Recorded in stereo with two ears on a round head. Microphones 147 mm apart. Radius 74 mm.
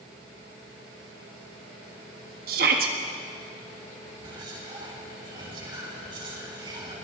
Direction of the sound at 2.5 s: 60° right (ahead or behind).